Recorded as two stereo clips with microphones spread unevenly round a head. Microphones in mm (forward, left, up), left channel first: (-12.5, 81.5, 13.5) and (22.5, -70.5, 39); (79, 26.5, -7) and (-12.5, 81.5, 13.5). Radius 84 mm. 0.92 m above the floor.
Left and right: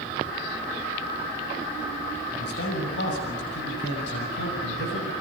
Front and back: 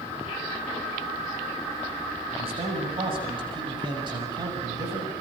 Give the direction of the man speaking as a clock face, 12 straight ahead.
8 o'clock.